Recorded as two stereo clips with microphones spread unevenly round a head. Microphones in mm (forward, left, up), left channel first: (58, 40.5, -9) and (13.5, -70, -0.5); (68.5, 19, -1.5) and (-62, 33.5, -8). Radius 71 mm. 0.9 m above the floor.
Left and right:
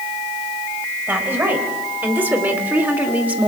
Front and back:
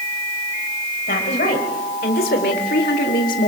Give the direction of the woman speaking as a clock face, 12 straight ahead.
1 o'clock.